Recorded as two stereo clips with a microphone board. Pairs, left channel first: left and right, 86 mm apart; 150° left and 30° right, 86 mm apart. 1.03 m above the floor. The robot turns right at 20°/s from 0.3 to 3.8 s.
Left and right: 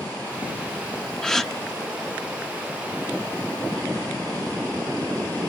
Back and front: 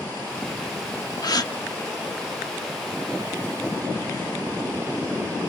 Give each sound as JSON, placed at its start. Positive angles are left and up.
{"t": 1.2, "sound": "a gasp", "azimuth_deg": 170, "distance_m": 0.7}